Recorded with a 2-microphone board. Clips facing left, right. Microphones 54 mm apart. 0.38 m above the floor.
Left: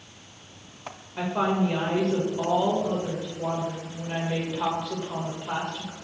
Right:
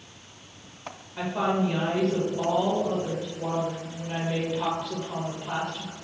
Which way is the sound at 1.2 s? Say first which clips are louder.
Left 1 dB; 10° left (ahead or behind).